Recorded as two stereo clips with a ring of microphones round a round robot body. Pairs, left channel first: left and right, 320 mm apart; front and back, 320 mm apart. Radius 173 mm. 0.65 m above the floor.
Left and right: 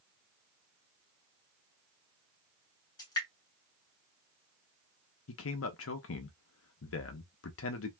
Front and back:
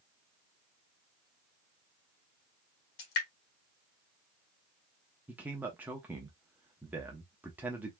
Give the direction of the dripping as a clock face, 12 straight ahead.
12 o'clock.